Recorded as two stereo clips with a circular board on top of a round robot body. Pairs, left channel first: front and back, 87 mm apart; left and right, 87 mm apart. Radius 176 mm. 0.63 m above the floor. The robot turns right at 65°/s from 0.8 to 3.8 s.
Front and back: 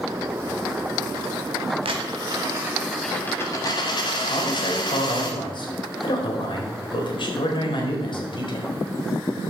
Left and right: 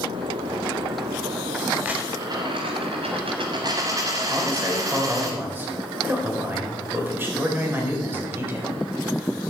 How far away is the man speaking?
About 4 m.